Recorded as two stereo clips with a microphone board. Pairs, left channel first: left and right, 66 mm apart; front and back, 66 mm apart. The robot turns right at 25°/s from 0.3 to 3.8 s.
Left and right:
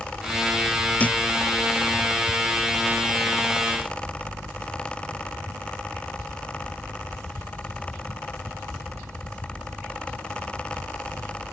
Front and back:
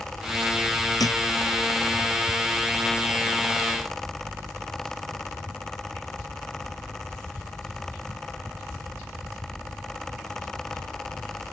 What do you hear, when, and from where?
1.0 s a thud: 20° left; by 1.2 s 25° left